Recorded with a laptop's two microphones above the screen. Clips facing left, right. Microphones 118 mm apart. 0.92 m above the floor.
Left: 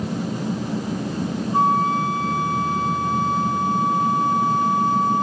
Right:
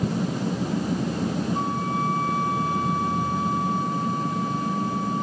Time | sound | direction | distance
1.5 | a flute | 70° left (ahead or behind) | 5.5 m